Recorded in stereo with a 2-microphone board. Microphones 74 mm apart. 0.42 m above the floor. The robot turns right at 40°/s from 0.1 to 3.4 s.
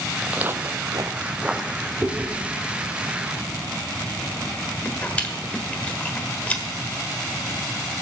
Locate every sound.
0.2 s footsteps: 5° right (ahead or behind), 1.1 m; by 1.9 s 15° left (ahead or behind), 1.5 m
2.0 s chewing: 25° right (ahead or behind), 1.4 m; by 6.6 s 20° left (ahead or behind), 1.4 m